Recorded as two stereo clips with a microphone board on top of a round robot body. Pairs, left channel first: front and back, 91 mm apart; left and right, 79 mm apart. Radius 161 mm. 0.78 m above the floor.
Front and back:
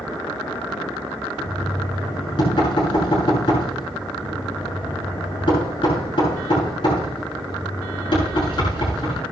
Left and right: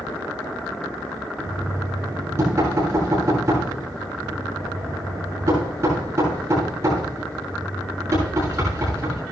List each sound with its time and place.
1.4 s knocking: 35° right, 7.5 m